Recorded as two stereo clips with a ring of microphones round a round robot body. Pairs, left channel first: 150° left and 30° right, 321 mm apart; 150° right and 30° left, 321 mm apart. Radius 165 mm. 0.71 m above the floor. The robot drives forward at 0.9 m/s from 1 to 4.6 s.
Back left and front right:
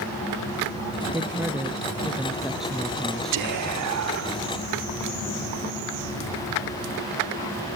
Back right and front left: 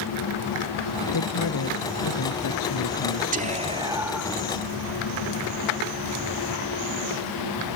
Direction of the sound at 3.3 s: 30° right.